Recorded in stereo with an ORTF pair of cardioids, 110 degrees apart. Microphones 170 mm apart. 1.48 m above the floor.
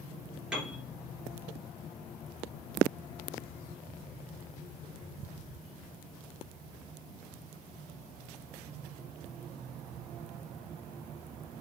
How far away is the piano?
About 2 m.